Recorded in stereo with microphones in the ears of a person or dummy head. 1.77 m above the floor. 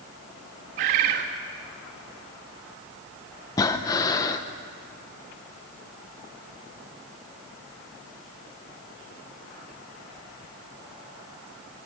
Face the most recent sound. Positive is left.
turn(degrees=25)  # may be behind; listen again after turning